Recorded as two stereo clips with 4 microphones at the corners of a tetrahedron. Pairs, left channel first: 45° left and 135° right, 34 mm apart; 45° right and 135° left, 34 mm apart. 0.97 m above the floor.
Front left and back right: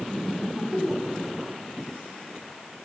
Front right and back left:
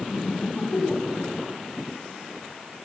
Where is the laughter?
80° right, 6.5 m; by 1.5 s 85° right, 8 m.